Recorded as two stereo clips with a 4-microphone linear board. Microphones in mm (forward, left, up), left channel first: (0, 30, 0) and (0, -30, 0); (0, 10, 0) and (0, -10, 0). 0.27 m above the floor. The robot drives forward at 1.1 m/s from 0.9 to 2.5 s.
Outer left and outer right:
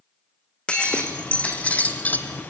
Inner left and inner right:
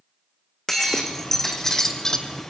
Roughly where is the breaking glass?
Centre.